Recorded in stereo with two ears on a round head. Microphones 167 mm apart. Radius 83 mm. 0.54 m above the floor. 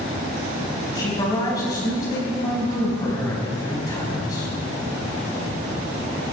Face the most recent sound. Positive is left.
turn(degrees=20)  # may be behind; listen again after turning